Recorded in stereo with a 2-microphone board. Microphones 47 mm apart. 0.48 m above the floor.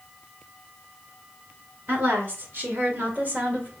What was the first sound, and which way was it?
A woman speaking, 50° right (ahead or behind).